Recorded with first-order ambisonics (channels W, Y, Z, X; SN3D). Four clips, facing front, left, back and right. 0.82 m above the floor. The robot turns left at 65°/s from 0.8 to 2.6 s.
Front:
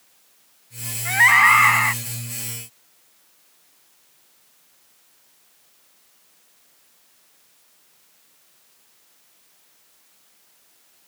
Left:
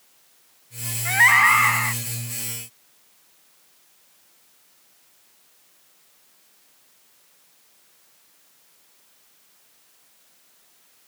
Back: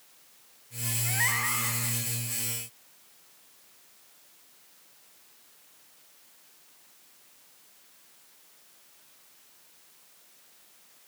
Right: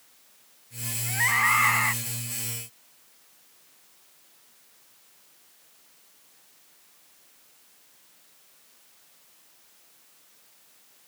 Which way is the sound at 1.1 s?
50° left.